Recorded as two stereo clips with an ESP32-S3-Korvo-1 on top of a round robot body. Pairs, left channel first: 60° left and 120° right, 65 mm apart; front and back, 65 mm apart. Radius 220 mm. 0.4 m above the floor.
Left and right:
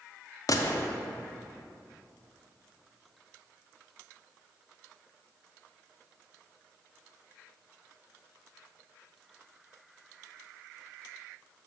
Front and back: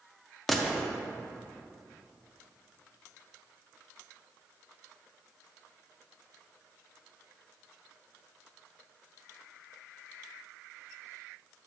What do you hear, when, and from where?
0.5 s a gunshot: 90° left, 0.8 m